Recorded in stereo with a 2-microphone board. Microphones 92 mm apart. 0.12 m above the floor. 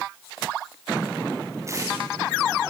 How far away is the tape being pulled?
About 6.5 m.